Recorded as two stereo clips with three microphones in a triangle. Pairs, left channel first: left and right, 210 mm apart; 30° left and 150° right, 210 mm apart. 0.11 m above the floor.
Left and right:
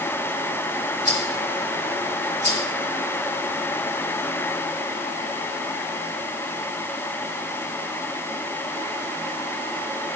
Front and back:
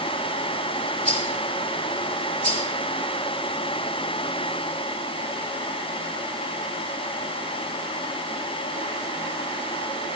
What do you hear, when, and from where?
1.1 s a rattle: 160° left, 5.5 m